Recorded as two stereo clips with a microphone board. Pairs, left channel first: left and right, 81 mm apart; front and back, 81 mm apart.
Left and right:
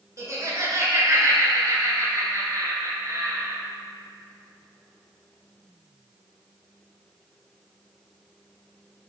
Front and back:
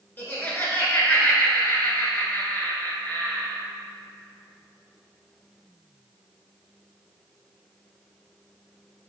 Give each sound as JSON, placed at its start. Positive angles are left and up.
{"t": 0.2, "sound": "laughter", "azimuth_deg": -60, "distance_m": 1.8}